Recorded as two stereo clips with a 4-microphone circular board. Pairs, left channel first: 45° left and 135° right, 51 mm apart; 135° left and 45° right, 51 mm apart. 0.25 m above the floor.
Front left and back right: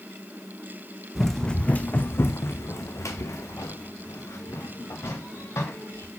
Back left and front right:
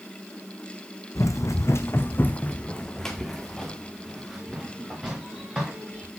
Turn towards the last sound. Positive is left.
turn(degrees=30)